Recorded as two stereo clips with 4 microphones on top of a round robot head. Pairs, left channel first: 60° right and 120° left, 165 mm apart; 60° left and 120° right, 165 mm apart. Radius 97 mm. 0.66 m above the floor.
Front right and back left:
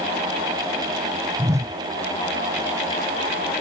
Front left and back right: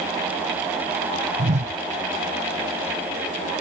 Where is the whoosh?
165° right.